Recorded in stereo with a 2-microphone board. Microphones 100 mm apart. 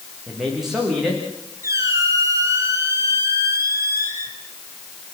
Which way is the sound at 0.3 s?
5° right (ahead or behind).